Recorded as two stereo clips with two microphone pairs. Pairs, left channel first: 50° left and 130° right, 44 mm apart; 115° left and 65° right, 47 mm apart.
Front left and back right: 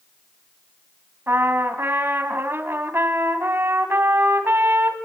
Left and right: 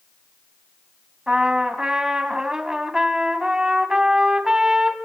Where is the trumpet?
140° right, 2.5 m.